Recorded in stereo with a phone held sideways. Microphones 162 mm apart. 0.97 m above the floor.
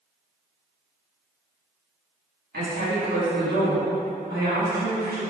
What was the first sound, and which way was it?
A woman speaking, 75° right (ahead or behind).